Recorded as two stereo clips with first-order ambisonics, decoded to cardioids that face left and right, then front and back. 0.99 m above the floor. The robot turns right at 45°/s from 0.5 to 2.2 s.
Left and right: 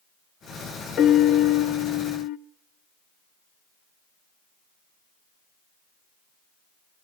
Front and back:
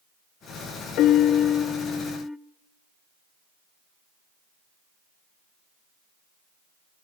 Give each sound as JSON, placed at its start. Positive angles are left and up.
{"t": 1.0, "sound": "a piano", "azimuth_deg": 35, "distance_m": 0.5}